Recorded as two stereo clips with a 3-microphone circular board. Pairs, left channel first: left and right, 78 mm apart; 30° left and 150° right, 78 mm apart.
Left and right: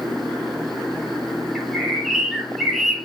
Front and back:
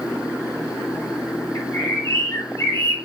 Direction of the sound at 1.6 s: 5° right.